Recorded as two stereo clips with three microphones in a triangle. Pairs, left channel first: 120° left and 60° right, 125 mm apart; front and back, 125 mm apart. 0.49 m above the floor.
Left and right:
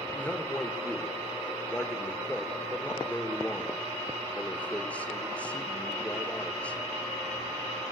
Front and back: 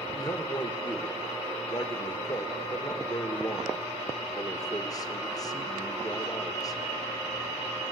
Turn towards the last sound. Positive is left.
turn(degrees=45)